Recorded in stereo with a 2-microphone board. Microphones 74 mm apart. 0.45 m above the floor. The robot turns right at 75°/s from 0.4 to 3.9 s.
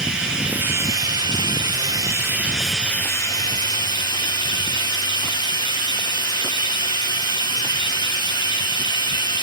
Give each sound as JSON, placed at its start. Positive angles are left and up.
{"t": 0.0, "sound": "running water", "azimuth_deg": -170, "distance_m": 3.5}